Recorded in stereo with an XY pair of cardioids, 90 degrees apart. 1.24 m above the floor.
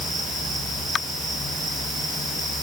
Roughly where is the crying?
I don't hear crying.